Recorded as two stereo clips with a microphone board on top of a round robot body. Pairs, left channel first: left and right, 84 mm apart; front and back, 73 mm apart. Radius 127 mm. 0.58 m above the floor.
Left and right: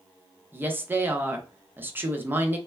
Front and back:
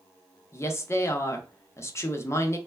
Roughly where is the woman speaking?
Ahead right.